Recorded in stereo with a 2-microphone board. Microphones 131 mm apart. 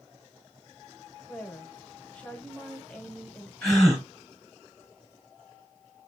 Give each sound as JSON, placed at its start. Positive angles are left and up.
{"t": 1.2, "sound": "a woman speaking", "side_deg": 10, "distance_m": 1.2}
{"t": 3.6, "sound": "a gasp", "side_deg": 5, "distance_m": 2.0}